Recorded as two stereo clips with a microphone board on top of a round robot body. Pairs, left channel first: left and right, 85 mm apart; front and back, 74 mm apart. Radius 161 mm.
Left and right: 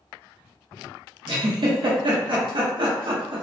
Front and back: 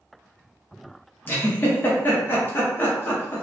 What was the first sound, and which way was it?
A giggle, 60° right.